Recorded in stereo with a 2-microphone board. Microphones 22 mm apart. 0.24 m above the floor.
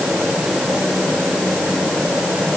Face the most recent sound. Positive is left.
No sound to turn to.